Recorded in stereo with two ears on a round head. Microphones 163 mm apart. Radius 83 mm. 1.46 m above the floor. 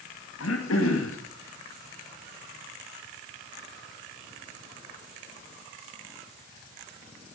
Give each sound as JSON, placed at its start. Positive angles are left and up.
{"t": 0.4, "sound": "throat clearing", "side_deg": 75, "distance_m": 2.5}